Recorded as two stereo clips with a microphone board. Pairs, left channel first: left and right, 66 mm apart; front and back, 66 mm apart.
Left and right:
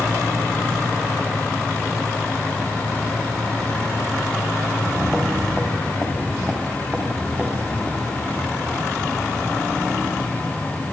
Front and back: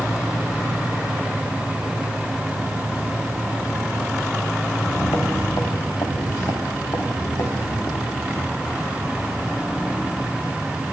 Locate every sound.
4.7 s footsteps: 25° right, 4.5 m; by 8.9 s 30° right, 7.5 m